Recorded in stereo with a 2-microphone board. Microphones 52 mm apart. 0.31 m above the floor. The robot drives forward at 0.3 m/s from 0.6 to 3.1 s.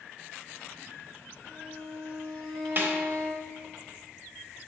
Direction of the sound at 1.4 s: 10° left (ahead or behind).